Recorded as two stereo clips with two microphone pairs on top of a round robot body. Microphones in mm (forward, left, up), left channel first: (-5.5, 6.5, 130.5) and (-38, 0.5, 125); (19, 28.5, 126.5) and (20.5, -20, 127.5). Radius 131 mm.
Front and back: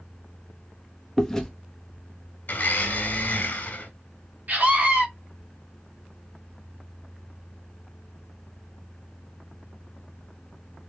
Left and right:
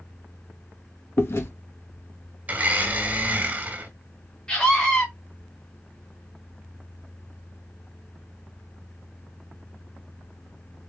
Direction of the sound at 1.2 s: 90° left.